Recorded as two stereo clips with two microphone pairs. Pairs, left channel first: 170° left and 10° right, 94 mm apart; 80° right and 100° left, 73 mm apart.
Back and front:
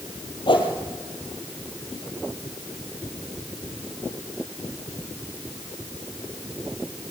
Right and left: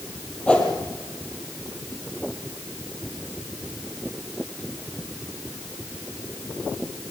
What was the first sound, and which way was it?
A whoosh, 155° right.